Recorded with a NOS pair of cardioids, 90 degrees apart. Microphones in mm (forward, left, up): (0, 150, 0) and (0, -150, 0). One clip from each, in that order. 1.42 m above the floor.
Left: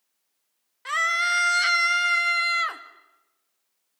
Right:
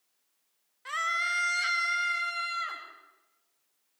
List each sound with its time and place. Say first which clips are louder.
0.8 s a scream: left 7 dB; 45° left, 2.5 m; by 2.8 s 70° left, 3 m